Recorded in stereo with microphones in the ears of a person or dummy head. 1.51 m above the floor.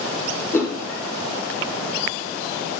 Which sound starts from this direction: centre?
A whoosh, at 0.5 s.